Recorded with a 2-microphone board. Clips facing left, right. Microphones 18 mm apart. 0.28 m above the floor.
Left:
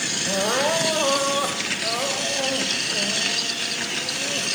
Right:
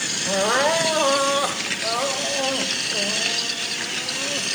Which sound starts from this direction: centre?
Crying, at 0.3 s.